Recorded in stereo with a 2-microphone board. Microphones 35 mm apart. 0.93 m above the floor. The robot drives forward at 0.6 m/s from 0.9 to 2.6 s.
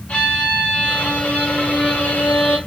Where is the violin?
55° left (ahead or behind), 1.9 m; by 2.6 s 65° left (ahead or behind), 1.7 m.